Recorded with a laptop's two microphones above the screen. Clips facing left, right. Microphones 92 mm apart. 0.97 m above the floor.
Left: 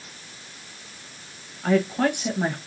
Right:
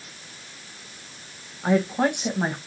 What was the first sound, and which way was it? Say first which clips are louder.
A woman speaking: even; 15° right (ahead or behind).